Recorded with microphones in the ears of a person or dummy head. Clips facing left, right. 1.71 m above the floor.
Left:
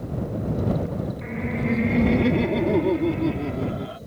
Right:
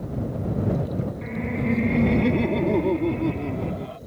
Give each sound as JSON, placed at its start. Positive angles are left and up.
{"t": 1.2, "sound": "laughter", "side_deg": -5}